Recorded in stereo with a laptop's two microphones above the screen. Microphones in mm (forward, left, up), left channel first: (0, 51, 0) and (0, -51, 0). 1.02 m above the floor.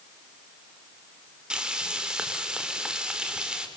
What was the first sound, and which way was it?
Frying, 10° right (ahead or behind).